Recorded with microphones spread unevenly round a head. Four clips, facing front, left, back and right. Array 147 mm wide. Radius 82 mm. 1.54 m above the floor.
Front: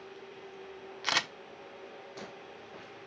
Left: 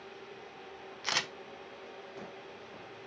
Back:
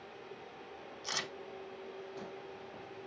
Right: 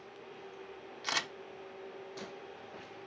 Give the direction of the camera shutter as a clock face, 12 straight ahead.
12 o'clock.